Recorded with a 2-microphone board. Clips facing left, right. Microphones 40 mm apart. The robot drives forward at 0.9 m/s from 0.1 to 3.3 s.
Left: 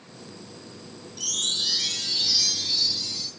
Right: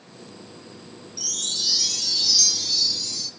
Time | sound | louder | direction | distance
1.2 | a chime | left 2 dB | 45° left (ahead or behind) | 1.0 m